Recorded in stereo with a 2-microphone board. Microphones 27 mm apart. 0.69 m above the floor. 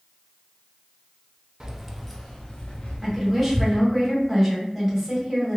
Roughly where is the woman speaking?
Centre.